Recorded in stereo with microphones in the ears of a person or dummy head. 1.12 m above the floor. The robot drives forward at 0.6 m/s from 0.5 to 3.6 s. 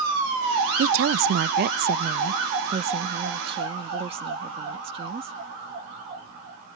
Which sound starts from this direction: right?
A woman speaking, at 0.8 s.